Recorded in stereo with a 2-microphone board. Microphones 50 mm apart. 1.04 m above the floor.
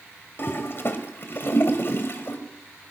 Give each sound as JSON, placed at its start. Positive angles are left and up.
{"t": 0.4, "sound": "a toilet flushing", "side_deg": 50, "distance_m": 2.5}